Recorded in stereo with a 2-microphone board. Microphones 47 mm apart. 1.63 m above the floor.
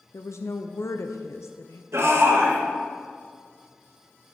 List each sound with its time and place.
0.1 s a woman speaking: 80° left, 0.6 m
1.9 s a shout: 85° right, 2.5 m